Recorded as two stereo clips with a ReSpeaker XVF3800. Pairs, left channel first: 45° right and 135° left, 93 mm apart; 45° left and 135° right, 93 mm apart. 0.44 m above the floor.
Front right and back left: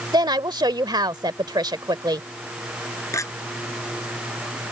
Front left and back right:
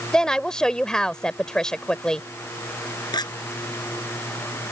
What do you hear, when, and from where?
0.1 s a woman speaking: 125° left
3.1 s a clink: 10° left